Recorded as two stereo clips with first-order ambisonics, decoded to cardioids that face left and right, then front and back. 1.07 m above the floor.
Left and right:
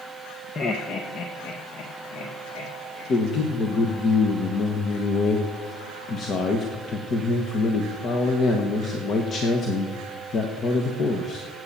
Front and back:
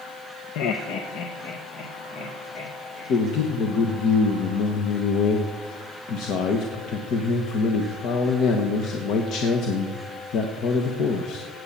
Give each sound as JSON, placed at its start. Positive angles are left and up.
{"t": 0.6, "sound": "laughter", "azimuth_deg": 20, "distance_m": 0.8}
{"t": 3.1, "sound": "a man speaking", "azimuth_deg": 35, "distance_m": 1.2}